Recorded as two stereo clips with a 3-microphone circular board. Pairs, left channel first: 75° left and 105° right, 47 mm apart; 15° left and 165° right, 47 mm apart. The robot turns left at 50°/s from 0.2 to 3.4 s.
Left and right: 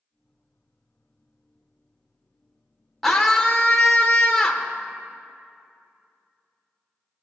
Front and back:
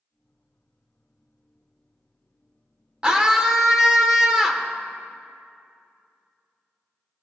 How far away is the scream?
About 0.8 m.